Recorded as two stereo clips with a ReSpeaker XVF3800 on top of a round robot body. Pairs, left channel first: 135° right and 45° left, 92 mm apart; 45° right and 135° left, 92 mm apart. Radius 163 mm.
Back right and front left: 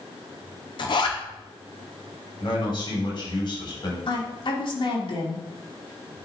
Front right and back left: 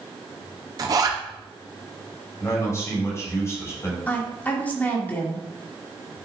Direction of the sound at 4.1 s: 115° right.